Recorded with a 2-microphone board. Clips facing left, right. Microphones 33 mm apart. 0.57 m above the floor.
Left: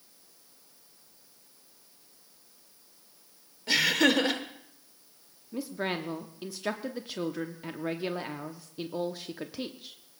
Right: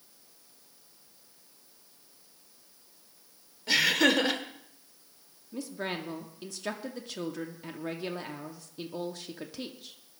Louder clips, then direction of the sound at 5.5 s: Left 3 dB; 15° left (ahead or behind).